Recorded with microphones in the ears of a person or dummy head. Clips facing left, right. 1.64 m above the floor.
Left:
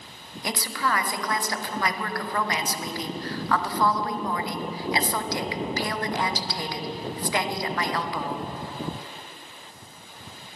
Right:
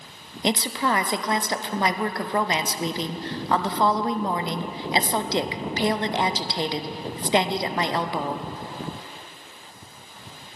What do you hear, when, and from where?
0.4 s a woman speaking: 20° right (ahead or behind), 0.5 m